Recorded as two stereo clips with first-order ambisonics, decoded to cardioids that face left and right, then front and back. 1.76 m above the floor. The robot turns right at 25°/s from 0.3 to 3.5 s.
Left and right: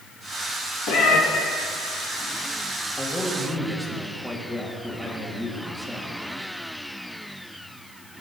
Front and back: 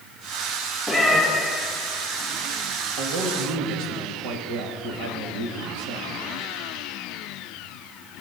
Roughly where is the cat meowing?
Left.